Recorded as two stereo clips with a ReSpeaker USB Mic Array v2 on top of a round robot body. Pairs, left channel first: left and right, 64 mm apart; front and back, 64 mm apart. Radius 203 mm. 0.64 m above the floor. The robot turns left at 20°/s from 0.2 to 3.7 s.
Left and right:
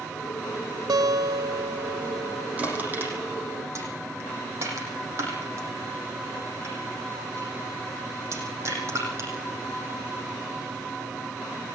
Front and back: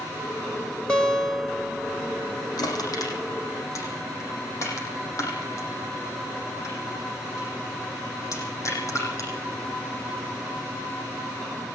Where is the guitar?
75° right, 2 m; by 2.5 s 110° right, 2 m.